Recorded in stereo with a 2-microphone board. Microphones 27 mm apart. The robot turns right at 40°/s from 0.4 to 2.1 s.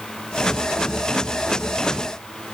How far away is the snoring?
No snoring in this recording.